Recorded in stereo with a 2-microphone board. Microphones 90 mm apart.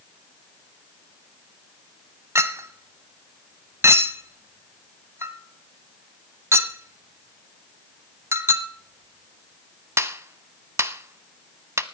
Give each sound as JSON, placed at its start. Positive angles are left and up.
{"t": 2.4, "sound": "a clink", "side_deg": -30, "distance_m": 0.6}